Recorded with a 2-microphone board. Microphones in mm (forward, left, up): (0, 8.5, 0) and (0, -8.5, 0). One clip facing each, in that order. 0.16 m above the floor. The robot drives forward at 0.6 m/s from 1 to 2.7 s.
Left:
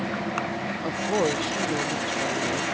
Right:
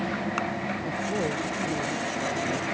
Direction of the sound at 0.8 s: 65° left (ahead or behind).